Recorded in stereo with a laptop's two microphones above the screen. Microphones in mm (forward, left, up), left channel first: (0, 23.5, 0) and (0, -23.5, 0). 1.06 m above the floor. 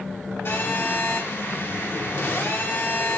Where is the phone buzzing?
55° left (ahead or behind), 2.5 m.